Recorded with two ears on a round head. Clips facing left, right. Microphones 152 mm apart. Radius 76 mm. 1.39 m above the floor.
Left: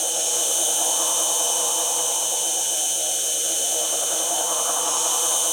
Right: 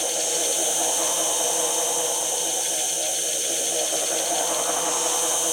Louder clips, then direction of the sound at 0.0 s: Right 3 dB; 40° left (ahead or behind).